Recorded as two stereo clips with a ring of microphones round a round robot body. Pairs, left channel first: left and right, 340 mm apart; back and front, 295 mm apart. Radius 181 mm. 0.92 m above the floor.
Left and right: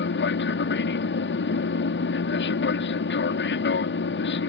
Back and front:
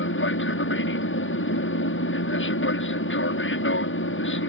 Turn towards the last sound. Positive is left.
turn(degrees=140)